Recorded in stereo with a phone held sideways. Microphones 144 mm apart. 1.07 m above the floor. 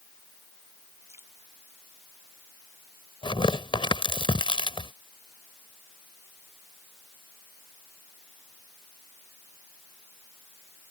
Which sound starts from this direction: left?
Tearing paper, at 3.2 s.